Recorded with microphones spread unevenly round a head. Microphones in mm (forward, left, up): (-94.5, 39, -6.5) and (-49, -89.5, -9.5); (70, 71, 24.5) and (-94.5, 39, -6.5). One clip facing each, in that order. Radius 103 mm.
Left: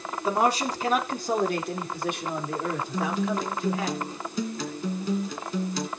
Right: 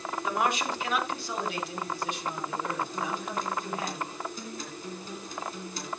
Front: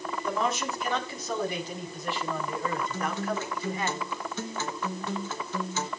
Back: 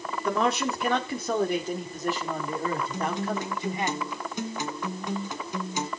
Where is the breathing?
No breathing in this recording.